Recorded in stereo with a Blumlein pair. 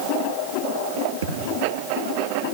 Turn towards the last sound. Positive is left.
turn(degrees=-65)